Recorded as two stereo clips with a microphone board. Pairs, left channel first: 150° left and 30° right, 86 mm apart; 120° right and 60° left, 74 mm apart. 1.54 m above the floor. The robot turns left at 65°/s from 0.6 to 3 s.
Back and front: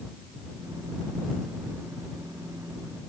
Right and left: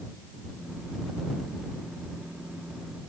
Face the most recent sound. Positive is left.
No sound to turn to.